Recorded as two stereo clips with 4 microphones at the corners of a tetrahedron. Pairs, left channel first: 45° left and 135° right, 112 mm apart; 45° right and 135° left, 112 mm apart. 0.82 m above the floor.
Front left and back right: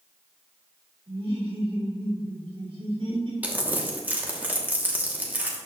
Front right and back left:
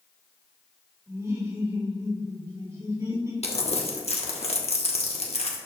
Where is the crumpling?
60° right, 1.2 m.